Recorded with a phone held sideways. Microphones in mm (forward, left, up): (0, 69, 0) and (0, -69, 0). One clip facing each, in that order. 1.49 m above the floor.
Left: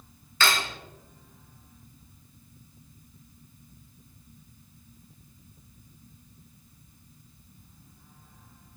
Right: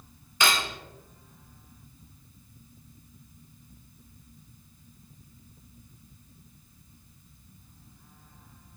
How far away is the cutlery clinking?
About 0.9 m.